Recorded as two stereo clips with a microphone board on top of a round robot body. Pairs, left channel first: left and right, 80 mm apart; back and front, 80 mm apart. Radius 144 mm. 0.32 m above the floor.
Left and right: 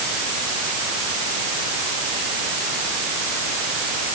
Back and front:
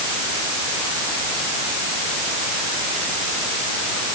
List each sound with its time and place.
Only background noise.